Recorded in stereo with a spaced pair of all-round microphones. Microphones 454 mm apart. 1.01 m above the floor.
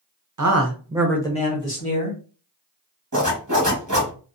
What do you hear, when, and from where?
0.4 s a man speaking: 45° right (ahead or behind), 0.6 m; by 2.2 s 40° left (ahead or behind), 1.1 m
3.1 s a zipper: 40° right (ahead or behind), 1.1 m